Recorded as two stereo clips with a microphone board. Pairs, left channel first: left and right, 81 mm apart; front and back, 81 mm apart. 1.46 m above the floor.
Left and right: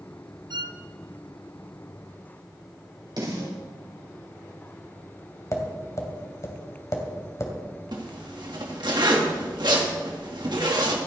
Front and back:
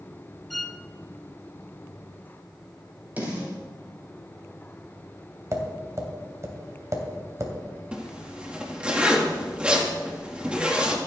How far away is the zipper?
About 2 m.